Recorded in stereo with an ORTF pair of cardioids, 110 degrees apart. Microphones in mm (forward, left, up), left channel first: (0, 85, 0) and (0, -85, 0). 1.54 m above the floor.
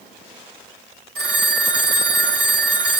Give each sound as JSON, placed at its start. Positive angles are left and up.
{"t": 1.1, "sound": "a phone ringing", "azimuth_deg": -70, "distance_m": 1.8}